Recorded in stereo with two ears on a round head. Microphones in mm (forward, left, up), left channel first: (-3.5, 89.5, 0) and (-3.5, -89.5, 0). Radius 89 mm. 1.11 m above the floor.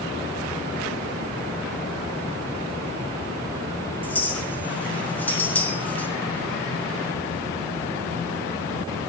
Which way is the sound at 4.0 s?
10° left (ahead or behind).